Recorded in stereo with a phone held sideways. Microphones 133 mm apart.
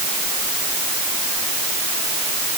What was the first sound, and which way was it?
Only background noise.